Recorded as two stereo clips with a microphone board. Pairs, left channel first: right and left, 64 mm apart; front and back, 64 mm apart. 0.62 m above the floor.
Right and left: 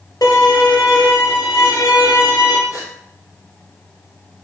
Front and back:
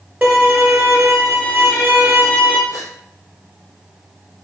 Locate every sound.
0.2 s a violin: 115° right, 2.5 m
2.7 s a gasp: 130° right, 3 m